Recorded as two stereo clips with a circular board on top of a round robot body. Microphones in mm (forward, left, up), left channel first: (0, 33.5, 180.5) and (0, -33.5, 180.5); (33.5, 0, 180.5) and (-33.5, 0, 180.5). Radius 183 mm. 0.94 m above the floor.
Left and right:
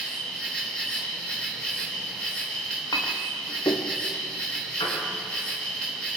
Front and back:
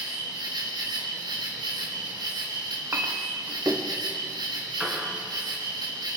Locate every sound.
0.0 s an insect: 170° left, 4.5 m
2.9 s a clink: 120° left, 1.7 m
4.8 s a piano: 95° left, 6 m